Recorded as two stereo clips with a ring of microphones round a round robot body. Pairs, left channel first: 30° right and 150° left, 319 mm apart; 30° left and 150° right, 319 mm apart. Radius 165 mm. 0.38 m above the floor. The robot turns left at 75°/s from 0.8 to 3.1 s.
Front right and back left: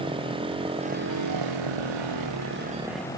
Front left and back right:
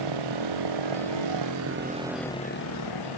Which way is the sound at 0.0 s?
135° right.